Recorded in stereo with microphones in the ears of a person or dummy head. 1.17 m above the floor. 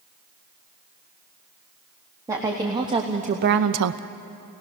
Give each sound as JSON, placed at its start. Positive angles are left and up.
{"t": 2.3, "sound": "a woman speaking", "side_deg": -10, "distance_m": 1.7}